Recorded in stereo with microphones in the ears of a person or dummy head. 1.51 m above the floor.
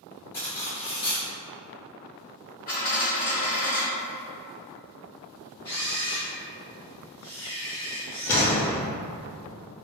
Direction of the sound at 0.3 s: 15° left (ahead or behind).